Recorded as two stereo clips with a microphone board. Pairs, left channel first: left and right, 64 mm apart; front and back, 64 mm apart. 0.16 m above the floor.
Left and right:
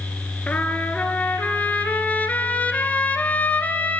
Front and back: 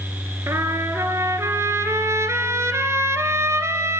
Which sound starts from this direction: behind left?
A trumpet, at 0.5 s.